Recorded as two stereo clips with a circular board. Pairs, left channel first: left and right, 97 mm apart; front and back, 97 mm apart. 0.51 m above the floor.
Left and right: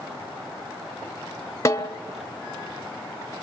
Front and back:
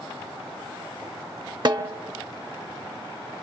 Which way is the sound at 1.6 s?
145° left.